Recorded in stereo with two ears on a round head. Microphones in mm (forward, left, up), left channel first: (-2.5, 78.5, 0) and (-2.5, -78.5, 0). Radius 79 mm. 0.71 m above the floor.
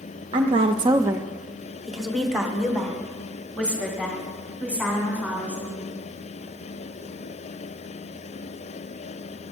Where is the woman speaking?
30° right (ahead or behind), 0.6 m; by 5.9 s 10° left (ahead or behind), 4.5 m.